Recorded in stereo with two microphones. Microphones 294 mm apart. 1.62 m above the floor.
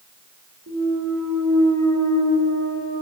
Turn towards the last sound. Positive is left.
turn(degrees=-70)  # may be behind; listen again after turning